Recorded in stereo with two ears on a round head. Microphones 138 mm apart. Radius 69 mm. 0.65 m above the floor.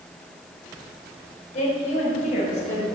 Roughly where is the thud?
I don't hear a thud.